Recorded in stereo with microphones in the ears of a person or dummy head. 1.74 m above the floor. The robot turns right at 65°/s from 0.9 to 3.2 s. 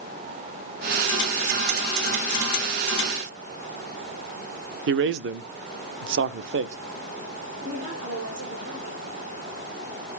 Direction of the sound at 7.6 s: 75° right (ahead or behind).